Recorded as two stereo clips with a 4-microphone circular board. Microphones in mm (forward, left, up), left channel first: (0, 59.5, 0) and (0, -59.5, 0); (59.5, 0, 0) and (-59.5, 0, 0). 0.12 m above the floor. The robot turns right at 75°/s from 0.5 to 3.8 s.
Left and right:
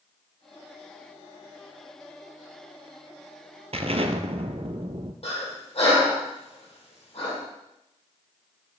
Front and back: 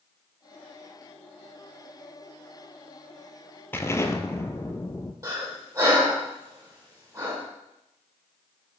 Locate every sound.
3.7 s an explosion: 70° right, 0.7 m; by 5.1 s 65° right, 0.7 m
5.2 s breathing: 125° left, 3 m